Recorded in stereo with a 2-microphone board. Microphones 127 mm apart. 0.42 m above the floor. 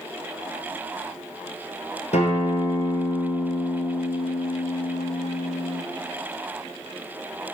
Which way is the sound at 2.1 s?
65° left (ahead or behind).